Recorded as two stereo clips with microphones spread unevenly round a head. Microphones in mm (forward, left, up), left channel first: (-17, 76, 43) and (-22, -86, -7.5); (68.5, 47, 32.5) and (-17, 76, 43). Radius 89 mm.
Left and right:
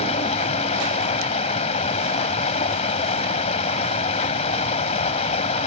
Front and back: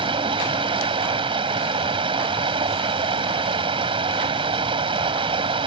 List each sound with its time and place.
0.0 s running water: 140° left